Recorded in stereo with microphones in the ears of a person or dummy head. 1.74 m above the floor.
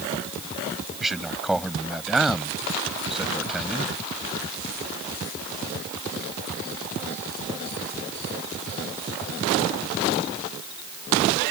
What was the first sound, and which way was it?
A man speaking, 5° left (ahead or behind).